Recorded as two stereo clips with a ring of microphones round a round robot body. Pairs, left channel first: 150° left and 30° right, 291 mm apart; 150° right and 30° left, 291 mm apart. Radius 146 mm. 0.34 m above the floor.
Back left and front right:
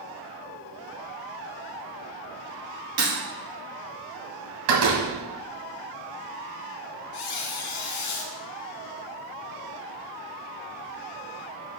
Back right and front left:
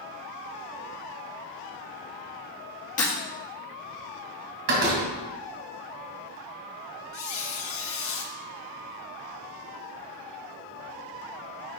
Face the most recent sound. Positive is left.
turn(degrees=160)